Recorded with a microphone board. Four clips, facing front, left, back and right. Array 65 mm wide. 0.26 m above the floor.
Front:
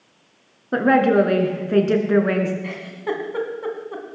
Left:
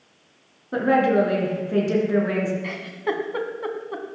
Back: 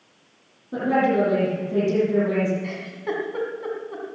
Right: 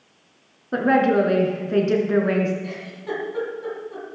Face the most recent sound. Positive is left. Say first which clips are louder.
# left 4 dB, front 2 dB
turn(degrees=65)